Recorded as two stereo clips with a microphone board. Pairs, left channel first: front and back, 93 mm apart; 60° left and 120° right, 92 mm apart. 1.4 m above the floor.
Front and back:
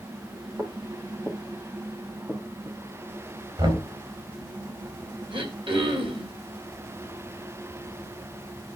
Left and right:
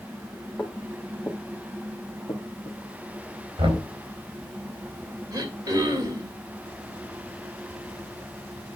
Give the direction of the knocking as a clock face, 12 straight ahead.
5 o'clock.